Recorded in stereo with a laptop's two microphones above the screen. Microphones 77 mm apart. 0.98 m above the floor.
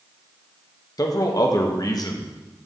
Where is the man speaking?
50° left (ahead or behind), 0.9 m.